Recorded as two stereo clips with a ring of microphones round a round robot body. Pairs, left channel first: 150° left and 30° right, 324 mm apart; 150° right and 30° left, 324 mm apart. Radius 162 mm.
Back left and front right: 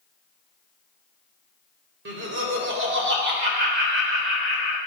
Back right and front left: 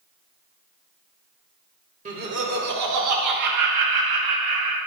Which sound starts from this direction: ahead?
Laughter, at 2.0 s.